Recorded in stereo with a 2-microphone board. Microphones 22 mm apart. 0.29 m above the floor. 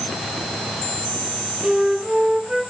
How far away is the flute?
About 3.5 m.